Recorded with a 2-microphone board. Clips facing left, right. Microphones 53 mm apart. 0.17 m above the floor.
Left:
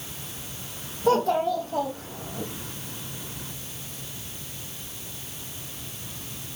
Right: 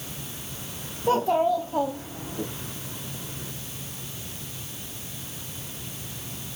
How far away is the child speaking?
About 5 m.